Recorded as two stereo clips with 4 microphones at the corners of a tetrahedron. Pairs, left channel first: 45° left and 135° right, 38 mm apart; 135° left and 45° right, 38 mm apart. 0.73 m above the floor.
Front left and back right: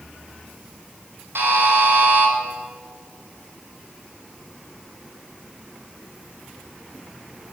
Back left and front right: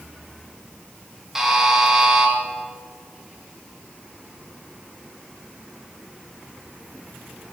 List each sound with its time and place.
1.4 s a buzzer: 125° right, 4 m